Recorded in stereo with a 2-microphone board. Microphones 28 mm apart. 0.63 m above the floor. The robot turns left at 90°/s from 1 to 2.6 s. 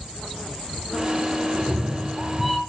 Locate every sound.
1.5 s a cat meowing: 90° right, 0.8 m; by 2.6 s 175° left, 0.8 m